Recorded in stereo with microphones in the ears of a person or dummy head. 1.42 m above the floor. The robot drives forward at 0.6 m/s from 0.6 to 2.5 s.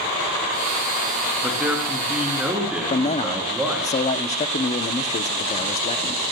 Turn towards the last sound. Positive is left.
turn(degrees=35)  # may be behind; listen again after turning